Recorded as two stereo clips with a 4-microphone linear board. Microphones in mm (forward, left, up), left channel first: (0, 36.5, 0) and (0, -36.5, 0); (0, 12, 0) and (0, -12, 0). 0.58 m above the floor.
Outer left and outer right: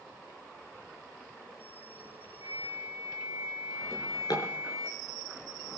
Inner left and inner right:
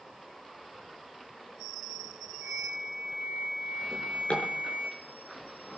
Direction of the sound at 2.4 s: 65° right (ahead or behind).